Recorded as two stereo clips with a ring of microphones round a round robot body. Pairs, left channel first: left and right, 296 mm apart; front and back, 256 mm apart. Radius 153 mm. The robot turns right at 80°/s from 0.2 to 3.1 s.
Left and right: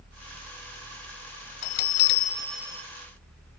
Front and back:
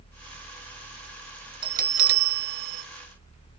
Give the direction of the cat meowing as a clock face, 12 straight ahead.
No cat meowing in this recording.